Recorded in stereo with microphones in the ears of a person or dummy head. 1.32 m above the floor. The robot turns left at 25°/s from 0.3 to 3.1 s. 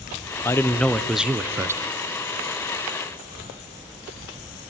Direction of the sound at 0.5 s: 15° left.